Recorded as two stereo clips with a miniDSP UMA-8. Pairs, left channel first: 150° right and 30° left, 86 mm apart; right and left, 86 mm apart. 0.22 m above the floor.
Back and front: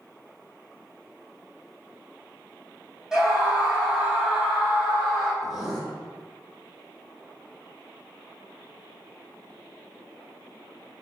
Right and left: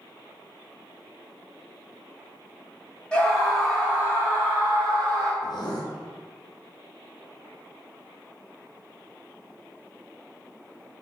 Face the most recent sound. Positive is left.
turn(degrees=-60)